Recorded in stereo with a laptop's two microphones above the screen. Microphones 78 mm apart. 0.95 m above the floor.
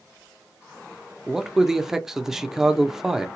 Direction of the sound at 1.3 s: 5° right (ahead or behind).